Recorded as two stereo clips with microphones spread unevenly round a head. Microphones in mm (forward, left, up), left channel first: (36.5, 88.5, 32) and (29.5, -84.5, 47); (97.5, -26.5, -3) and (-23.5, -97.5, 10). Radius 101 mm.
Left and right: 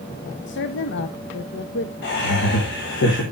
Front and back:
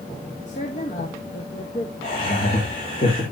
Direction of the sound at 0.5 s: 85° left.